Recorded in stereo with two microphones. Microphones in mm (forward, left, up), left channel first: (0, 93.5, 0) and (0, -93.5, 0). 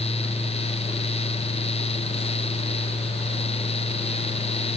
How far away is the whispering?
I don't hear whispering.